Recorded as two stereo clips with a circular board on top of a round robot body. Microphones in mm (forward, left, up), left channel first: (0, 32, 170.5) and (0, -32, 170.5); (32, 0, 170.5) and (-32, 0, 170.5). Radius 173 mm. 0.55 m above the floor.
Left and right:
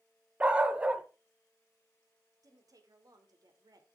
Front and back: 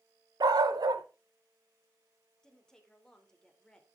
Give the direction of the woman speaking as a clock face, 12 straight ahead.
3 o'clock.